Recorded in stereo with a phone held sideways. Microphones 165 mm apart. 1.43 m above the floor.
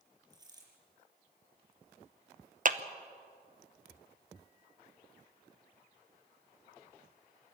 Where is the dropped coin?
25° right (ahead or behind), 5.5 m.